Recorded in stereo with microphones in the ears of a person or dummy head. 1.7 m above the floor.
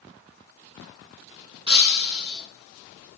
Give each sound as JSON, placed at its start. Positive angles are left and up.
{"t": 1.7, "sound": "breaking glass", "side_deg": -25, "distance_m": 10.0}